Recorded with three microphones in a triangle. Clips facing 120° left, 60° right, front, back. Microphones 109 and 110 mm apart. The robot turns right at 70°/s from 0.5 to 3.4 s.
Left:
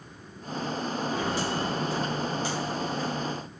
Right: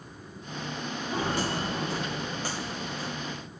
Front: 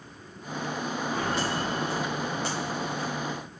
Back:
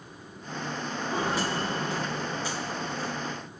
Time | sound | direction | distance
1.1 | footsteps | 115° right | 6 m